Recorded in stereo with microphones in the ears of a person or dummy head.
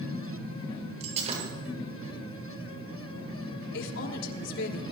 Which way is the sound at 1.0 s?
45° right (ahead or behind).